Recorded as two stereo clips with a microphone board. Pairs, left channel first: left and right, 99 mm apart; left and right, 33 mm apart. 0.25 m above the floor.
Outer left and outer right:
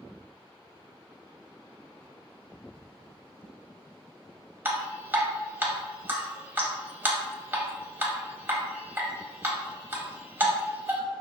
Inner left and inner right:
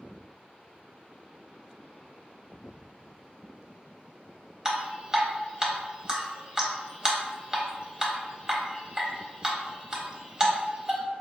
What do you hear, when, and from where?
4.7 s dripping: 20° right (ahead or behind), 0.7 m